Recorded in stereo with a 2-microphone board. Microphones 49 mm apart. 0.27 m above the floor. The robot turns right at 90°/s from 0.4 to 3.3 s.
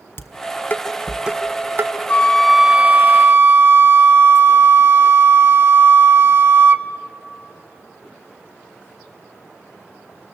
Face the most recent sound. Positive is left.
turn(degrees=-110)